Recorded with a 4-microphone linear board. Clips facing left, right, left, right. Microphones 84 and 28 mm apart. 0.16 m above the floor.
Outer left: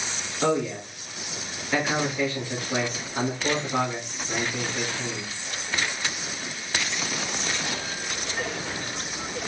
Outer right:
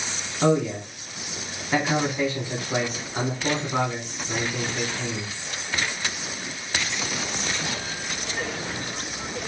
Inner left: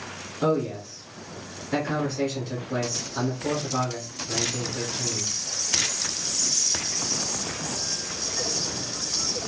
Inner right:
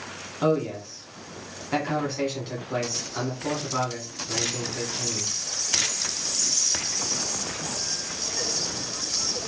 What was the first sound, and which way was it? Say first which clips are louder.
A man speaking: outer right 3 dB, inner right 1 dB; 20° right (ahead or behind).